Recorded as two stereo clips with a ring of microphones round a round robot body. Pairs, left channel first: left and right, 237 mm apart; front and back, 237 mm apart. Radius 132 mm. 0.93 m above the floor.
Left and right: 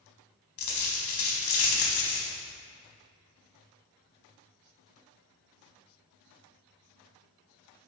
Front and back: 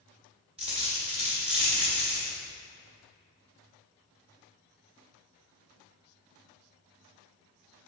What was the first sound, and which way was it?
A dropped coin, 110° left.